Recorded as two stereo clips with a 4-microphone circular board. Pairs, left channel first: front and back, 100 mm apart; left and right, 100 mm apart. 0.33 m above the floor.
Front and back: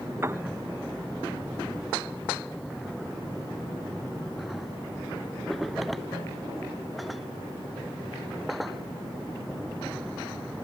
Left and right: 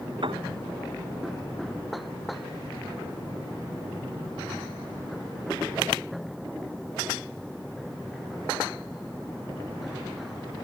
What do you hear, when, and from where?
0.2 s a piano: 120° right